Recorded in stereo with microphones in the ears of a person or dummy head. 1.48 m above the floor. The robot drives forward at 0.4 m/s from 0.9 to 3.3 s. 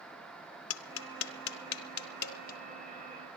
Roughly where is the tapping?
Left.